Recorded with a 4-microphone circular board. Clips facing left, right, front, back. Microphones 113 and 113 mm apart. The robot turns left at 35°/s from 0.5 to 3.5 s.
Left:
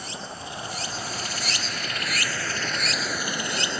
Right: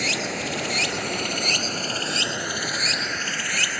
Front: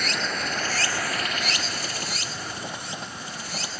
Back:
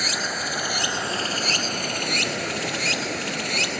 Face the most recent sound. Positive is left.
turn(degrees=160)